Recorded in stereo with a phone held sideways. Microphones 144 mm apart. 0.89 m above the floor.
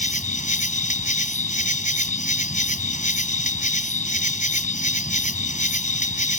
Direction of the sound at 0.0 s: 60° left (ahead or behind).